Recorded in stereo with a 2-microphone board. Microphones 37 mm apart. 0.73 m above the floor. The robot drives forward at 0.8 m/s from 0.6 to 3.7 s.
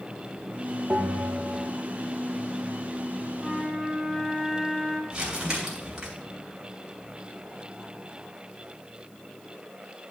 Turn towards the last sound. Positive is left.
turn(degrees=-20)  # may be behind; listen again after turning